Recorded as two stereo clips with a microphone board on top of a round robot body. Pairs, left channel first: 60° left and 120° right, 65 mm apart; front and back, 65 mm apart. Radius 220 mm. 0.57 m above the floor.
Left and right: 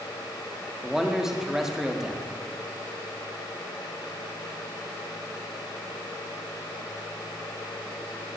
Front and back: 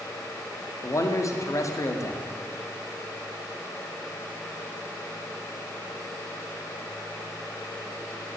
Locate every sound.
0.8 s a man speaking: 40° right, 2 m